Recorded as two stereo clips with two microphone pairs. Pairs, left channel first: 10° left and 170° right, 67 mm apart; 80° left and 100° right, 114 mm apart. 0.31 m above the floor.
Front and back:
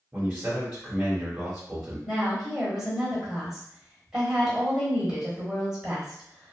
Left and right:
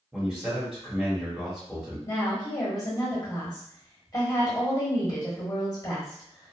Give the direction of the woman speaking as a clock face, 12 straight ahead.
8 o'clock.